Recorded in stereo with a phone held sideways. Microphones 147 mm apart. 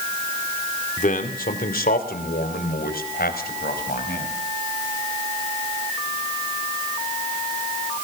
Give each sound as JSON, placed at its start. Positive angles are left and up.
{"t": 1.0, "sound": "a man speaking", "side_deg": 60, "distance_m": 2.5}